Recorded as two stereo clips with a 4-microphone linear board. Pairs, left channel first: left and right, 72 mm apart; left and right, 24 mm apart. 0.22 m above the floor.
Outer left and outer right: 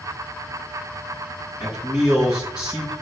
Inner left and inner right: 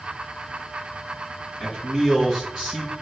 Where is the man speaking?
20° right (ahead or behind), 3 m.